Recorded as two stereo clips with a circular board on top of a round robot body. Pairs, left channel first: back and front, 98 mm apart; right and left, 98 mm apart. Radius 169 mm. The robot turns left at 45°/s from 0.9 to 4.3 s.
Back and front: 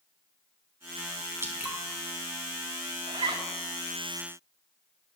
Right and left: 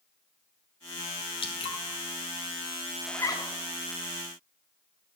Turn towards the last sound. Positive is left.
turn(degrees=-85)